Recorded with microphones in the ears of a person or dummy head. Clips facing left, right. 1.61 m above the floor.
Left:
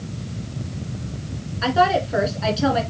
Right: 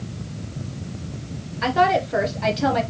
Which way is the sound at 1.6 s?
15° right (ahead or behind).